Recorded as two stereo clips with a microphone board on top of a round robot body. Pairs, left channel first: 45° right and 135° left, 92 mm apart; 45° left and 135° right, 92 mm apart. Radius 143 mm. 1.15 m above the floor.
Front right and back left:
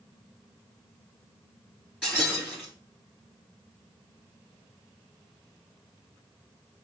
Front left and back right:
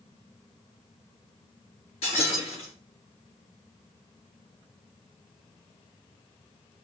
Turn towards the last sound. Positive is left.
turn(degrees=35)